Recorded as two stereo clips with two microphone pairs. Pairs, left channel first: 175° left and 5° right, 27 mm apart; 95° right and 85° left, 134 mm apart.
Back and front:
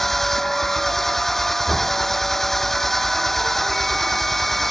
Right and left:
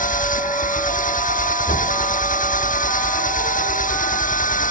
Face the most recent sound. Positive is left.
turn(degrees=-110)